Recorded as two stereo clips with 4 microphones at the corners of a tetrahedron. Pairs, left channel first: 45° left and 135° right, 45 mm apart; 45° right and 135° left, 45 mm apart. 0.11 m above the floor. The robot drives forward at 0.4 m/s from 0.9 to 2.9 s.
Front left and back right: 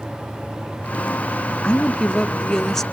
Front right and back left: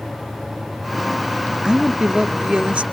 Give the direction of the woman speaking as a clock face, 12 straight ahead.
9 o'clock.